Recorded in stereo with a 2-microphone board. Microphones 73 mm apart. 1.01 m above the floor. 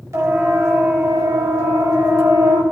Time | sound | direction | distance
0.1 | a siren | 45° right (ahead or behind) | 5.5 m